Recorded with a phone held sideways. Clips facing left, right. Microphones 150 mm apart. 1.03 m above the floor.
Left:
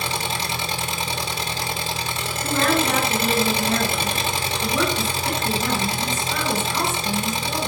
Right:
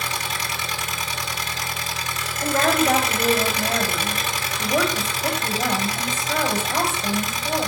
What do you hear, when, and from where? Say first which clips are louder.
0.0 s an engine running: left 3 dB; 30° left (ahead or behind), 1.6 m
2.4 s a woman speaking: right 1 dB; 85° right, 6.5 m